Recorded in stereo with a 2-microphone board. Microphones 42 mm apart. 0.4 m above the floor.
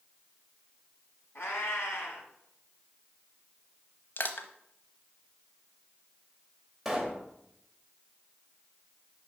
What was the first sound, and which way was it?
A cat meowing, 75° left (ahead or behind).